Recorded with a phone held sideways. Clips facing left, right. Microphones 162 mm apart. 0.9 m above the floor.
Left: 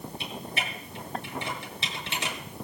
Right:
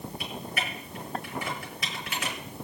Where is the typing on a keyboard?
30° left (ahead or behind), 7.5 m.